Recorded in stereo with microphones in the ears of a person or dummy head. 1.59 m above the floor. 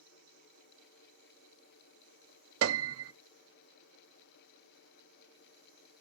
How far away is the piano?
About 0.5 m.